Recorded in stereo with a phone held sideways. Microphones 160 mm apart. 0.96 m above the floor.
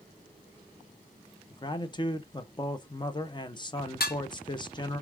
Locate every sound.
1.5 s a man speaking: 30° left (ahead or behind), 0.6 m
4.0 s dishes clattering: 75° left (ahead or behind), 0.9 m